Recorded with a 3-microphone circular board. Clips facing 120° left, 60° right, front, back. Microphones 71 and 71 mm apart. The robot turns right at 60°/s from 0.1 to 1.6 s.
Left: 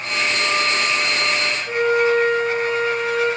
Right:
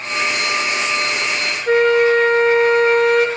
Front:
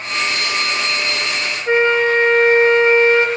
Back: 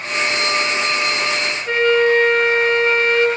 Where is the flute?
65° right, 4 m.